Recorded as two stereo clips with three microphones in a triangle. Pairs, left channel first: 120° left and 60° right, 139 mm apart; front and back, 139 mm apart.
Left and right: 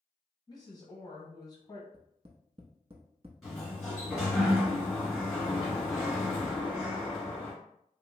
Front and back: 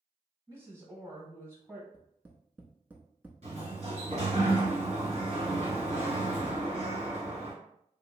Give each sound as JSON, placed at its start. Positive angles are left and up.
{"t": 0.5, "sound": "a woman speaking", "azimuth_deg": 125, "distance_m": 1.3}
{"t": 1.9, "sound": "tapping", "azimuth_deg": -105, "distance_m": 0.6}
{"t": 3.4, "sound": "a sliding door", "azimuth_deg": -145, "distance_m": 1.9}